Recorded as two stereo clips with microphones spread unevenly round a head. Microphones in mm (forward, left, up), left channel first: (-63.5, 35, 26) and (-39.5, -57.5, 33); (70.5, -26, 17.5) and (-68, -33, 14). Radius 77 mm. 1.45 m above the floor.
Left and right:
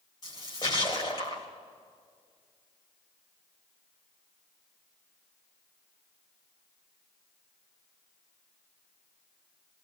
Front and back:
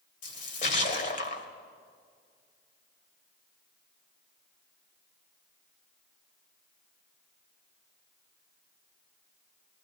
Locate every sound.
0.2 s a splash: 40° left, 2 m